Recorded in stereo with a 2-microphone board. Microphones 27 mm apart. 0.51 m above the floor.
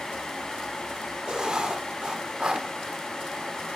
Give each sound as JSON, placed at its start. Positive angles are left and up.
{"t": 1.3, "sound": "writing", "side_deg": -30, "distance_m": 0.7}